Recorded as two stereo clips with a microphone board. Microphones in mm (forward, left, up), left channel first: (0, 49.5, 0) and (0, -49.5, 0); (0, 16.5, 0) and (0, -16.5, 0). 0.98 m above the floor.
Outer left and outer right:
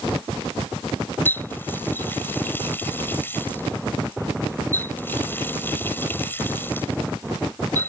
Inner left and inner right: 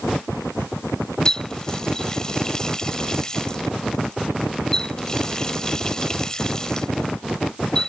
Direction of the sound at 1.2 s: 20° left (ahead or behind).